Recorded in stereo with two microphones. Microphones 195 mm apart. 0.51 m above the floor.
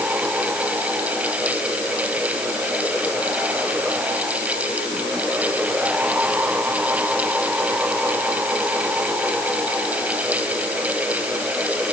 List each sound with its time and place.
Only background noise.